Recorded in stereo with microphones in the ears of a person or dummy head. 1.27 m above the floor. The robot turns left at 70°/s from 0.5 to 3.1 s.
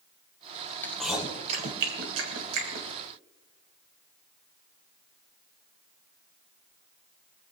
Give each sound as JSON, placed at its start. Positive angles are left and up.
{"t": 0.8, "sound": "chewing", "side_deg": 15, "distance_m": 2.5}